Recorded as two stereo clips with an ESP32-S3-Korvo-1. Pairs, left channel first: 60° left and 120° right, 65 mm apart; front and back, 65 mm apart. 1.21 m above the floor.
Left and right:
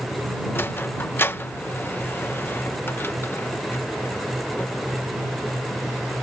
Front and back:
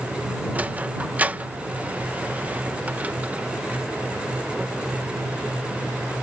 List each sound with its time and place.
0.6 s a sliding door: 115° left